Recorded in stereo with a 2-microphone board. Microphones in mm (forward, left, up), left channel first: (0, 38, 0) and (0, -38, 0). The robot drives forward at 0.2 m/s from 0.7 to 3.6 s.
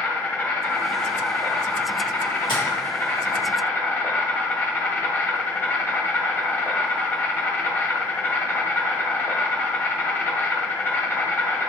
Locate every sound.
0.0 s an insect: 20° left (ahead or behind), 1.0 m; by 11.7 s 25° left (ahead or behind), 0.9 m
2.5 s tapping: 85° left, 1.9 m